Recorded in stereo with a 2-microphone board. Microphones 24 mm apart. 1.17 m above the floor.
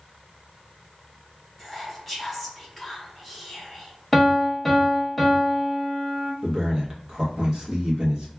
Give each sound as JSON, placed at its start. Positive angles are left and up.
{"t": 1.6, "sound": "whispering", "side_deg": 0, "distance_m": 1.2}
{"t": 4.1, "sound": "a piano", "side_deg": 0, "distance_m": 0.7}
{"t": 6.4, "sound": "a man speaking", "side_deg": -40, "distance_m": 1.1}